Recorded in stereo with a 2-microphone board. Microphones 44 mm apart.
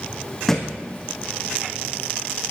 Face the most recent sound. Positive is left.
turn(degrees=10)  # may be behind; listen again after turning